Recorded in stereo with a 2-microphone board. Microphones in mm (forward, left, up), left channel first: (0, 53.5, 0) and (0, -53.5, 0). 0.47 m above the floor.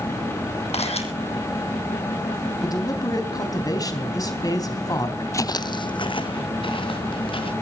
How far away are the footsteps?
About 0.5 m.